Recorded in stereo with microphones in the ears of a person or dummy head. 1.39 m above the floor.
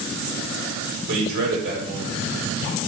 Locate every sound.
1.1 s a man speaking: 60° right (ahead or behind), 1.2 m